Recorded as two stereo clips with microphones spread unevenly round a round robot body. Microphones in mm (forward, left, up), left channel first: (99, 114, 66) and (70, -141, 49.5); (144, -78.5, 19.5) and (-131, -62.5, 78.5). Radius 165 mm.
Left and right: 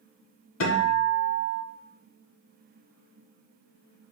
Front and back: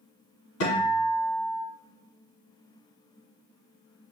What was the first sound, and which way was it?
A guitar, 40° left.